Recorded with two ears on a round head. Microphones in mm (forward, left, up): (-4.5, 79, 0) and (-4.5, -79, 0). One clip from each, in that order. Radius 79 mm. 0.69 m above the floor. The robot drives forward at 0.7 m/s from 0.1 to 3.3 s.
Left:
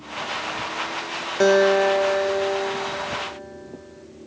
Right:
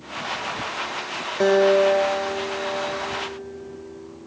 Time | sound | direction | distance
1.4 | a guitar | 30° left (ahead or behind) | 1.8 m